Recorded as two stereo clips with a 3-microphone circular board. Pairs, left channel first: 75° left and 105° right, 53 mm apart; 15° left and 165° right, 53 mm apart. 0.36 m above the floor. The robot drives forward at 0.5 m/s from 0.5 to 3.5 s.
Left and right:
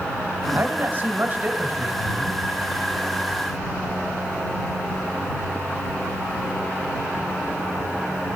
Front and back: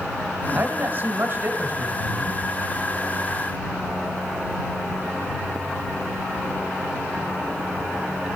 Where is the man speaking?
125° right, 1.3 m; by 2.4 s 155° right, 1.9 m.